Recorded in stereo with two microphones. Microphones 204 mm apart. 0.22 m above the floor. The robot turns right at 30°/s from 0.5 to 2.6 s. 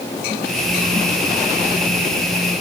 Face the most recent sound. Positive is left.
No sound to turn to.